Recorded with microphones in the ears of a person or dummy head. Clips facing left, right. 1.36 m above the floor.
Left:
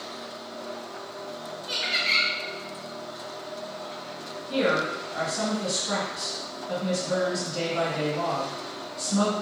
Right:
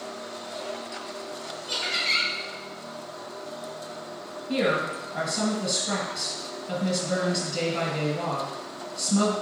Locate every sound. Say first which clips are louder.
1.7 s laughter: even; 25° right (ahead or behind), 1.6 m
4.5 s a woman speaking: even; 40° right (ahead or behind), 1.0 m